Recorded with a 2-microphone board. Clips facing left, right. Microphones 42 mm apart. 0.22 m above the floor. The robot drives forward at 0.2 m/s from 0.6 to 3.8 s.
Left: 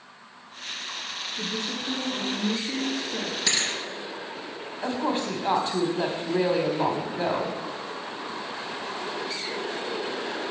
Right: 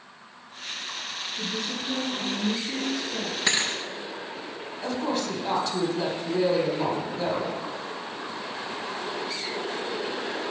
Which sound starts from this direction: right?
A thud, at 3.5 s.